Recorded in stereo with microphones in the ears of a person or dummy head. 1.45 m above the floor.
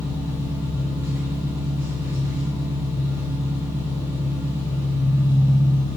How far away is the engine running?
About 1.4 m.